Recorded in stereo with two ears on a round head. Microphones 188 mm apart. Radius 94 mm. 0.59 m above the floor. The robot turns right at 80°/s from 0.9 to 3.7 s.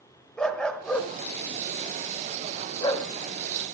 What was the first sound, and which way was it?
A dog barking, 5° left (ahead or behind).